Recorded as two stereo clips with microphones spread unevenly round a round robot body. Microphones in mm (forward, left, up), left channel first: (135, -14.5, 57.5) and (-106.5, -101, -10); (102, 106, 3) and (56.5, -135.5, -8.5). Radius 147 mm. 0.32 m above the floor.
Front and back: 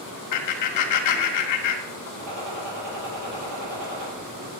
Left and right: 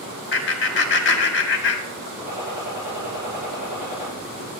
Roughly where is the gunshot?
Behind.